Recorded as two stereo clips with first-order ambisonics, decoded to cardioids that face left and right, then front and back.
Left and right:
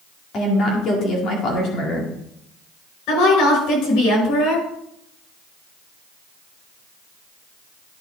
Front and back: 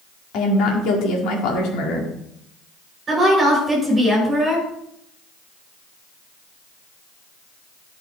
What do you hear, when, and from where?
0.3 s a woman speaking: 35° left, 2 m
3.1 s a woman speaking: 105° left, 5 m